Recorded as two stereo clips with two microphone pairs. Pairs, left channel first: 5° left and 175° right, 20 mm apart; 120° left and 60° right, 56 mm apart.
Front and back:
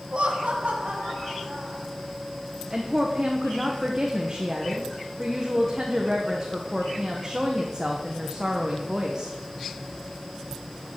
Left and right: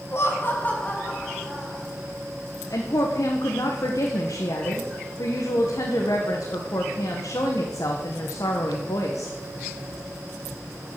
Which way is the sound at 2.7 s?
120° left.